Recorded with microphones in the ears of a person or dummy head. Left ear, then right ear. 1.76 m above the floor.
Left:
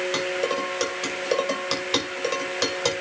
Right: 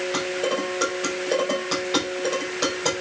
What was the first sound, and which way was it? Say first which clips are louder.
Dishes clattering: right 2 dB; 55° left (ahead or behind).